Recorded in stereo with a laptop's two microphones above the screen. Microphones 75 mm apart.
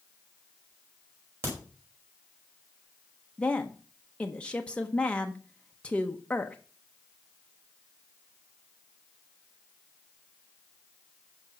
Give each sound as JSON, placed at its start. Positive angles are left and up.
{"t": 1.4, "sound": "a crack", "side_deg": -35, "distance_m": 5.0}
{"t": 3.4, "sound": "a woman speaking", "side_deg": 15, "distance_m": 0.9}